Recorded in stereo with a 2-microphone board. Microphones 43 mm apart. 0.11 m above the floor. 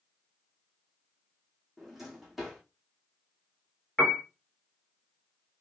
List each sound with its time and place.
1.8 s a drawer: 5° right (ahead or behind), 2 m
4.0 s a piano: 25° left (ahead or behind), 1.1 m